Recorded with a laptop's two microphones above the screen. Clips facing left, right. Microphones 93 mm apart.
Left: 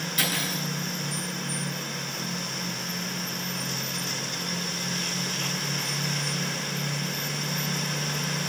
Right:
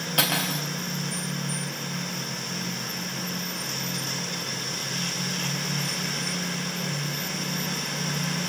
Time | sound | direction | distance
0.2 | cutlery clinking | 65° right (ahead or behind) | 2.5 m